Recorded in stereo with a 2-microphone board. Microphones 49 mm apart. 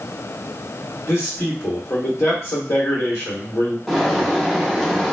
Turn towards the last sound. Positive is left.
turn(degrees=5)  # may be behind; listen again after turning